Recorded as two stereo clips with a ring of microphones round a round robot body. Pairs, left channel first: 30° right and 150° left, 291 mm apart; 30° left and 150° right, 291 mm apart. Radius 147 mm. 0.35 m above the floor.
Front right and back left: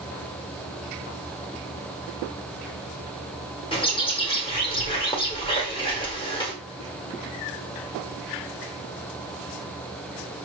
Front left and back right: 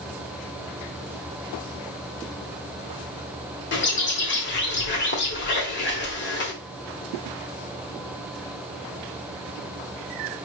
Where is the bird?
30° left, 1.3 m.